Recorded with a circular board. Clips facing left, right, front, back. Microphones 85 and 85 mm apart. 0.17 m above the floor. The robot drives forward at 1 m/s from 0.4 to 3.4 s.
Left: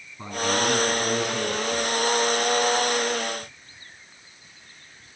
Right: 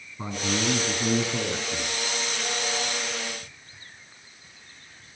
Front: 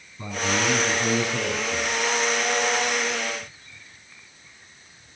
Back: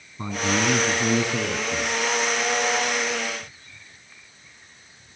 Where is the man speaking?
175° right, 2 m; by 1.9 s straight behind, 3.5 m.